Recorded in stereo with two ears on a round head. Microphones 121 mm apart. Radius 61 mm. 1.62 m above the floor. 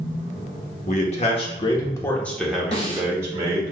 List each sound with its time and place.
0.9 s a man speaking: 55° left (ahead or behind), 1.0 m; by 3.7 s 30° right (ahead or behind), 1.3 m
2.7 s a snare drum: 45° left (ahead or behind), 1.3 m